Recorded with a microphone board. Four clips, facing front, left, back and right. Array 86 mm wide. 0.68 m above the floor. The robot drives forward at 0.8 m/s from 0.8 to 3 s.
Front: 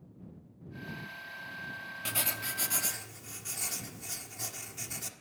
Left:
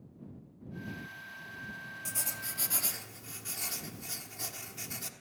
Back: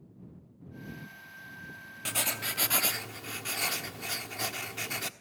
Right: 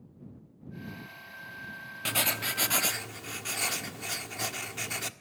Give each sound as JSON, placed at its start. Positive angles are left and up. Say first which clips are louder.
{"t": 2.0, "sound": "writing", "louder": "right 15 dB, back 3 dB", "azimuth_deg": -100, "distance_m": 1.0}